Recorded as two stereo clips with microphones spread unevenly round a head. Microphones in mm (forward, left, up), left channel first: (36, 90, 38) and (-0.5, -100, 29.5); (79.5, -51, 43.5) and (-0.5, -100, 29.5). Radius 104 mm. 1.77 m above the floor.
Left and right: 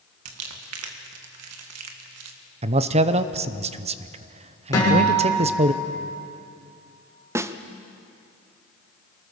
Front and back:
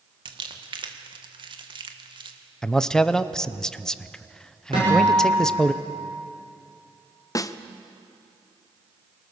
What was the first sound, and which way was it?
Crumpling, 115° right.